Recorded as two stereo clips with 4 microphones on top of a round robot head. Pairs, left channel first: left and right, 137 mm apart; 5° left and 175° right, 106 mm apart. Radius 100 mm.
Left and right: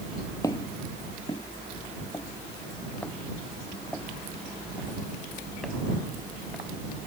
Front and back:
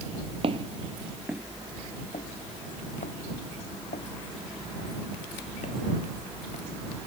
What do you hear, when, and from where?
0.4 s footsteps: 160° left; by 7.1 s straight ahead